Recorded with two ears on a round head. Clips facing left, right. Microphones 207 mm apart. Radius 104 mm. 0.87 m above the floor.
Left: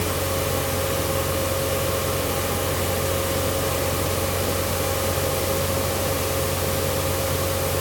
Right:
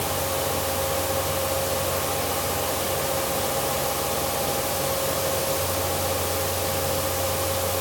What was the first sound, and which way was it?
Only background noise.